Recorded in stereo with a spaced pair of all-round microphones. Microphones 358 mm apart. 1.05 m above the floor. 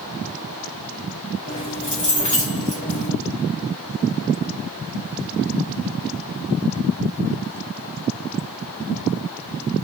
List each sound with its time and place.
1.5 s keys jangling: 55° left (ahead or behind), 2 m